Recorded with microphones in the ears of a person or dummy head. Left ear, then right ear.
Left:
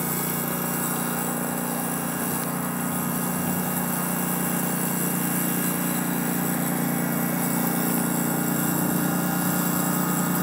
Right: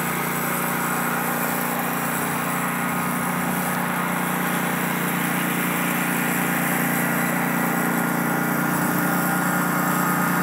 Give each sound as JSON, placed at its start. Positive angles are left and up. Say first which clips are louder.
{"t": 0.0, "sound": "a lawn mower", "louder": "right 5 dB", "side_deg": -75}